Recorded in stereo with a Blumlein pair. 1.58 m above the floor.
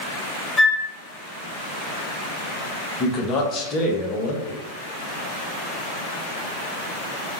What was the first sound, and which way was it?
A flute, 5° left.